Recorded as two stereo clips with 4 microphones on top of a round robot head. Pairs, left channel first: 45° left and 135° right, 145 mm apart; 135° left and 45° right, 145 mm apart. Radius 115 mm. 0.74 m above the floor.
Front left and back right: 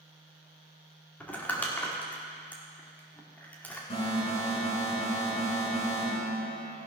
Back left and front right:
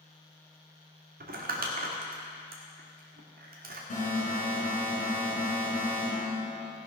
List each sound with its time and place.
1.2 s crumpling: 35° right, 1.9 m
3.9 s an alarm: 95° left, 4.5 m